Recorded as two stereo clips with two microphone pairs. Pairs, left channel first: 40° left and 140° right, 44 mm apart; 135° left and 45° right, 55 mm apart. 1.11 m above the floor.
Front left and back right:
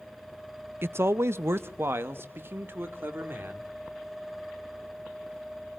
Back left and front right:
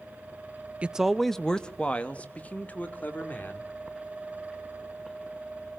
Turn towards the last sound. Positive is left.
turn(degrees=-170)